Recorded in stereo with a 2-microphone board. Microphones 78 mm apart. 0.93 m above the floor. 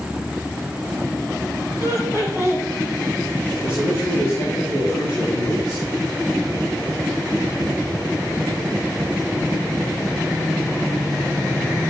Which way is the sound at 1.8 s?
55° left (ahead or behind).